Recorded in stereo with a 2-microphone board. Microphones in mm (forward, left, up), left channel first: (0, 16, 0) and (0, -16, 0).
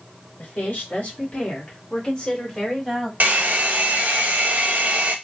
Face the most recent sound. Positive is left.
turn(degrees=-60)  # may be behind; listen again after turning